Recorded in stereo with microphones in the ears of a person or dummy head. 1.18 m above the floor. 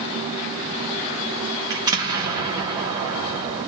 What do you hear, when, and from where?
1.7 s an explosion: 15° right (ahead or behind), 1.2 m